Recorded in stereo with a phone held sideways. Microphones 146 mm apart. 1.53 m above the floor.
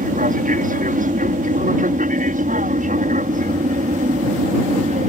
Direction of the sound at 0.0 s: 65° right (ahead or behind).